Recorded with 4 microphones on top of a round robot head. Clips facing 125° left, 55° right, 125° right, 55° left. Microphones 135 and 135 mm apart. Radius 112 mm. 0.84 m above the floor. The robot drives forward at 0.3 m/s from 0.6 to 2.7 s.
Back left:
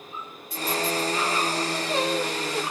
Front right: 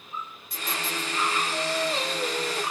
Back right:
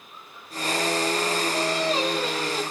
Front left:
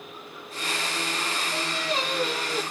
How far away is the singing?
About 2 m.